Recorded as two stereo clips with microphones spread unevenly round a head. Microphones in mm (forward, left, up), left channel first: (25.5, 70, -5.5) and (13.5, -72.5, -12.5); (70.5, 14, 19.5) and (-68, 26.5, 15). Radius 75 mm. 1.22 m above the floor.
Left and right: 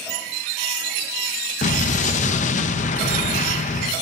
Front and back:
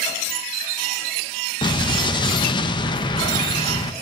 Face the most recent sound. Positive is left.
turn(degrees=50)